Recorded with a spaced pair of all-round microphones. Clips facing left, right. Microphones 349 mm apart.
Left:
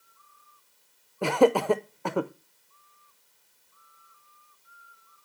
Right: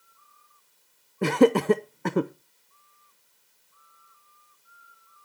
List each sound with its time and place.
1.2 s laughter: 30° right (ahead or behind), 0.7 m